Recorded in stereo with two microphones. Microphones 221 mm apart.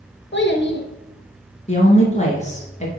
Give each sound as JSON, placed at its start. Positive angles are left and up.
{"t": 0.3, "sound": "a child speaking", "side_deg": 55, "distance_m": 1.5}
{"t": 1.7, "sound": "a woman speaking", "side_deg": 30, "distance_m": 2.0}